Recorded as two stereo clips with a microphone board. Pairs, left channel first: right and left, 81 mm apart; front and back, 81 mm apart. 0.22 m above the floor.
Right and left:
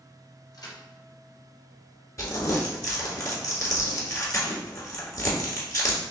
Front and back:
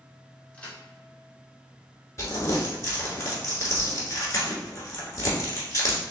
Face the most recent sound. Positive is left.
turn(degrees=-45)